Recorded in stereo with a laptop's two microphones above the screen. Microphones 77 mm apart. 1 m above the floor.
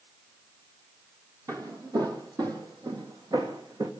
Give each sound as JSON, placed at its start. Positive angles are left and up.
{"t": 1.5, "sound": "footsteps", "side_deg": -45, "distance_m": 2.0}